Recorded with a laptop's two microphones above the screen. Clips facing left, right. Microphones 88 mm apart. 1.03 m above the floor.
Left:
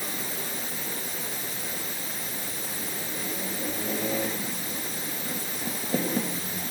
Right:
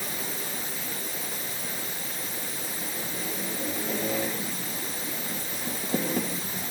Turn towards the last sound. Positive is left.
No sound to turn to.